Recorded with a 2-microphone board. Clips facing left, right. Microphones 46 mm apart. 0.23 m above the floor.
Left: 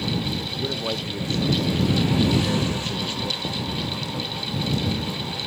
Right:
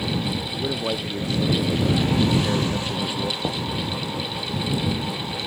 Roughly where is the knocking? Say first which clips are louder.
Right 2 dB; right.